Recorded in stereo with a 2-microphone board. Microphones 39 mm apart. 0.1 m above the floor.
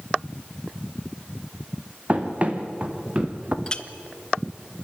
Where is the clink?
20° left (ahead or behind), 0.7 m.